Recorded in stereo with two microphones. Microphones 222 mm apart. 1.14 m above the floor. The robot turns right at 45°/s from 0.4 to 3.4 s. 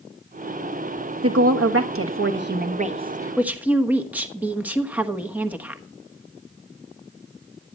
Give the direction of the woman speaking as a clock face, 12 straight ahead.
3 o'clock.